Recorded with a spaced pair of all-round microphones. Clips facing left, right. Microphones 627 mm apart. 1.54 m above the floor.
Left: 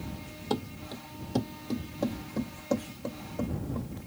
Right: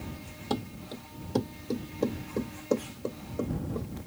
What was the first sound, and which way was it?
Running footsteps, 5° right (ahead or behind).